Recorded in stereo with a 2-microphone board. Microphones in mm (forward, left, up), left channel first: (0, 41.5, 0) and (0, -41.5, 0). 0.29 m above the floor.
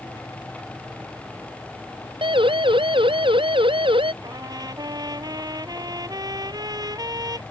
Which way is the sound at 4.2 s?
50° right (ahead or behind).